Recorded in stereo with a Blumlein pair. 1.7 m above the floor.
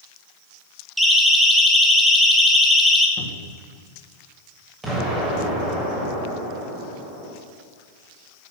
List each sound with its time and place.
1.0 s a siren: 5° right, 2.5 m
3.2 s a cupboard door: 30° left, 3 m
4.8 s an explosion: 15° right, 7 m